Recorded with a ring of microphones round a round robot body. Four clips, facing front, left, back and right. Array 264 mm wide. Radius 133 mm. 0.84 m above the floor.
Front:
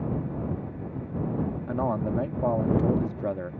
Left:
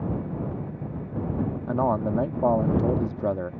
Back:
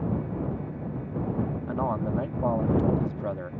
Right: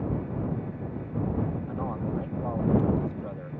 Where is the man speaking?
70° left.